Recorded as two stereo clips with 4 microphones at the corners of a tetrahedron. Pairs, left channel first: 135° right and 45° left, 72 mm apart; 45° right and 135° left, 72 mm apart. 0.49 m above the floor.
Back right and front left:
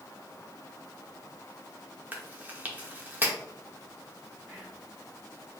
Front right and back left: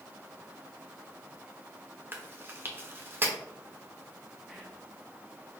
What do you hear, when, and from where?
2.1 s chewing: 95° left, 0.9 m
4.5 s whispering: 60° left, 0.8 m